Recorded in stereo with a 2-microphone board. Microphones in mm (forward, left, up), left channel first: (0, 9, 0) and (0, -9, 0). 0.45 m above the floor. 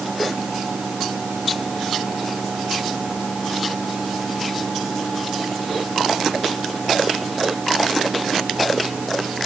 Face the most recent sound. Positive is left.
No sound to turn to.